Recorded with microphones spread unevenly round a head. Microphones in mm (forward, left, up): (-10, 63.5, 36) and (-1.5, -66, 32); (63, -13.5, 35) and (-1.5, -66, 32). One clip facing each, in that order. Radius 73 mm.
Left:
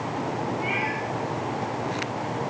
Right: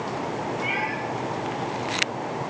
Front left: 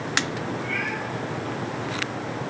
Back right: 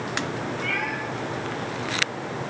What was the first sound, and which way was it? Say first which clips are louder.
A cat meowing: even, back right 1 dB; 140° right.